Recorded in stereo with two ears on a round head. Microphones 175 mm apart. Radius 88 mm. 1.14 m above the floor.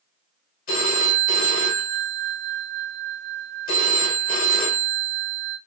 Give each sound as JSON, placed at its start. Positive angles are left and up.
{"t": 0.7, "sound": "a phone ringing", "side_deg": 45, "distance_m": 2.5}